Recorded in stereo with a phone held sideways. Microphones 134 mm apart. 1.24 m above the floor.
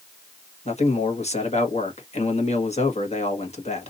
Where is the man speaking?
55° left (ahead or behind), 1.4 m.